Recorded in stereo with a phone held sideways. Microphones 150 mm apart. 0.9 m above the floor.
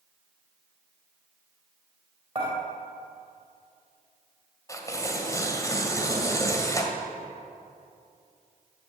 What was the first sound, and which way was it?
Dishes clattering, 35° right (ahead or behind).